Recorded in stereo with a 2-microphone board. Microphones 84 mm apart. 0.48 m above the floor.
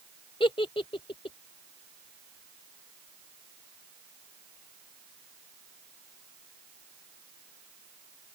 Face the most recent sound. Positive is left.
turn(degrees=80)